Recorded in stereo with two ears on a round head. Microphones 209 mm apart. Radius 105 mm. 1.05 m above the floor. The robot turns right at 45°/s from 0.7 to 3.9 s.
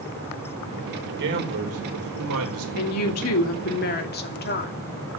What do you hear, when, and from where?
1.0 s a man speaking: 135° right, 4.5 m; by 2.6 s 65° right, 4.5 m
2.8 s a woman speaking: 80° left, 2.5 m; by 4.7 s 135° left, 2.5 m